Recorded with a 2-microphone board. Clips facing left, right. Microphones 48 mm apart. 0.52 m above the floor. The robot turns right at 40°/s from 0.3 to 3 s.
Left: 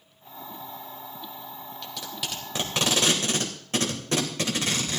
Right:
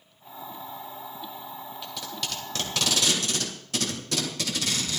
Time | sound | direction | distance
1.8 | tape being pulled | 5° right (ahead or behind) | 2.5 m